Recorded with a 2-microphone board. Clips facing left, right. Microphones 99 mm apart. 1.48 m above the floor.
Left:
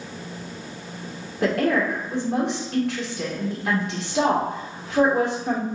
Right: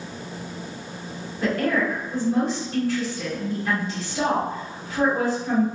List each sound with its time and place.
1.4 s a woman speaking: 80° left, 1.4 m